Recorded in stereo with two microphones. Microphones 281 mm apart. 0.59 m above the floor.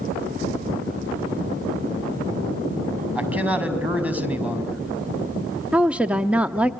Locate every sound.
3.1 s a man speaking: 5° right (ahead or behind), 4.5 m
5.7 s a woman speaking: 5° right (ahead or behind), 0.8 m